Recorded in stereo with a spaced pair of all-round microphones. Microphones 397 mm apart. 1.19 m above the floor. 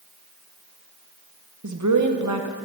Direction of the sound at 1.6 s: 45° right (ahead or behind).